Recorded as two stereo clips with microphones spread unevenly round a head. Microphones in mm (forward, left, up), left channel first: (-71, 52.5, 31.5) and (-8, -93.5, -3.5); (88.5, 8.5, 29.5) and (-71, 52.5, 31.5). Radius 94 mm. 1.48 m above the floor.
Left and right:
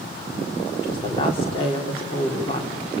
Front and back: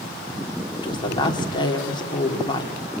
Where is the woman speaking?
50° left, 4 m.